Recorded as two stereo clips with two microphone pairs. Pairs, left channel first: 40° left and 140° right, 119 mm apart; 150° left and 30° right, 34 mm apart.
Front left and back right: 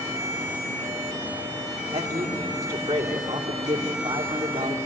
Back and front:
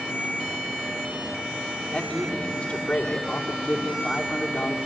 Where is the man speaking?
145° right, 2.5 m.